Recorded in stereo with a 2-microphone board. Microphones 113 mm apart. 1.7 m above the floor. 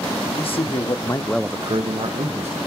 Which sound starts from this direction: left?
A man speaking, at 0.3 s.